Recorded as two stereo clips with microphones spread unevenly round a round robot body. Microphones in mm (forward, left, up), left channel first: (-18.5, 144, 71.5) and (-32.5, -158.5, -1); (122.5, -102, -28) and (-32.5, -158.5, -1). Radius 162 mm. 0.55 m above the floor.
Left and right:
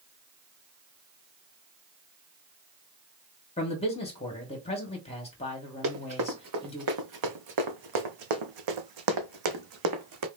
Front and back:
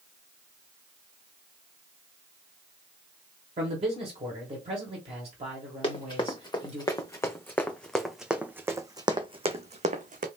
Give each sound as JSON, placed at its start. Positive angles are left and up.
{"t": 3.6, "sound": "a man speaking", "azimuth_deg": 165, "distance_m": 1.3}
{"t": 5.8, "sound": "running footsteps", "azimuth_deg": -40, "distance_m": 2.5}